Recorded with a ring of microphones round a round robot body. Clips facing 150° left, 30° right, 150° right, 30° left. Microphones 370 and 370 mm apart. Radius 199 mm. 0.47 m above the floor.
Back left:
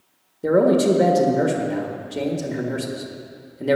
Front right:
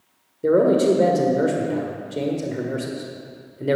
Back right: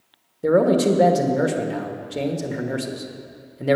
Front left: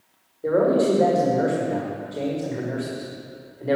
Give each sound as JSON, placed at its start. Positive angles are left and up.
{"t": 0.4, "sound": "a man speaking", "azimuth_deg": -130, "distance_m": 1.5}